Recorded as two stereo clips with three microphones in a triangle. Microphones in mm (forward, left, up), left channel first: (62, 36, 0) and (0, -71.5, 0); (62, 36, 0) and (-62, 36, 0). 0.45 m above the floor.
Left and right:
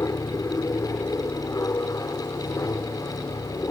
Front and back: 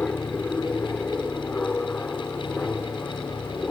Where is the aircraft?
60° left.